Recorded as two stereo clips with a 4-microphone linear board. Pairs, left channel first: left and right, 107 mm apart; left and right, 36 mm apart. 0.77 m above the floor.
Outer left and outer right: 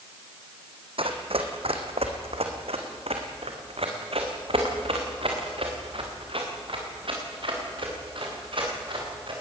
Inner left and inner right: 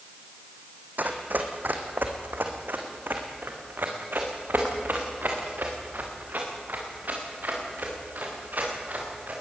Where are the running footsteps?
65° right (ahead or behind), 2.5 m; by 9.3 s 55° right (ahead or behind), 7 m.